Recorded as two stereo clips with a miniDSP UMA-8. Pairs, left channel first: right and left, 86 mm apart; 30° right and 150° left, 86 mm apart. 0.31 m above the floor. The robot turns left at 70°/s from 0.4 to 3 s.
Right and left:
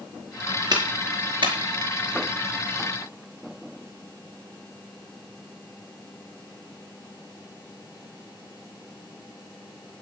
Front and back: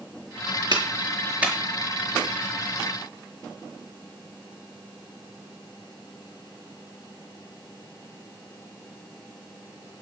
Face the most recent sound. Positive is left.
turn(degrees=-35)